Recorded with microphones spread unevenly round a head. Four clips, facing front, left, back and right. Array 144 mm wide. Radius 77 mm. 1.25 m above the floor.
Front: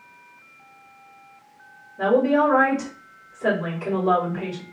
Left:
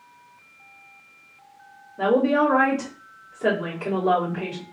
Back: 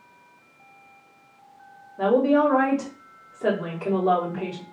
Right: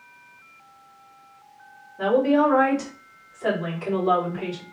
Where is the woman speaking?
135° left, 2.5 m.